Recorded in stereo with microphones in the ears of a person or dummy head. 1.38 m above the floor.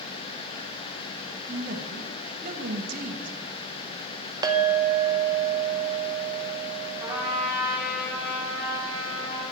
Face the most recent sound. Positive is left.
turn(degrees=-10)  # may be behind; listen again after turning